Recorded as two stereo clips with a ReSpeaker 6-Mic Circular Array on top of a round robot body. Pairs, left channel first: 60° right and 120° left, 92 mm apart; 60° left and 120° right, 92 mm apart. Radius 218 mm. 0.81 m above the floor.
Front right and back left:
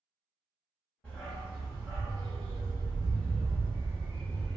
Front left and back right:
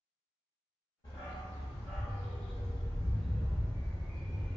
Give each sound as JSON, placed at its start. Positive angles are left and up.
{"t": 1.0, "sound": "a dog barking", "azimuth_deg": 15, "distance_m": 1.0}